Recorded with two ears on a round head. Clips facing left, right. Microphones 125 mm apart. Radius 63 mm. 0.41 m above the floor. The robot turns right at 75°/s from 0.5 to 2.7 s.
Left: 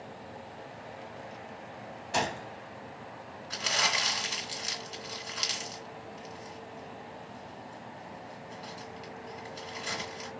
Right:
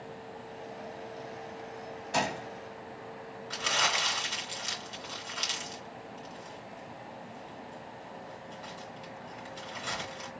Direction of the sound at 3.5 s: 10° left (ahead or behind).